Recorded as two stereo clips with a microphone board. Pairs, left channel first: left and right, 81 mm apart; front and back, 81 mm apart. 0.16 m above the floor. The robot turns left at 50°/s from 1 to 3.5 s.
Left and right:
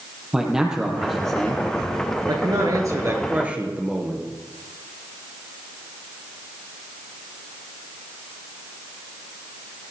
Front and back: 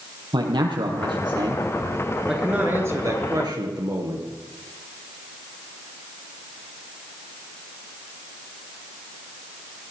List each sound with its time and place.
0.3 s a man speaking: 170° right, 4.5 m; by 1.6 s 155° left, 4.5 m
2.3 s a man speaking: 100° right, 3.5 m; by 4.3 s 160° right, 3.5 m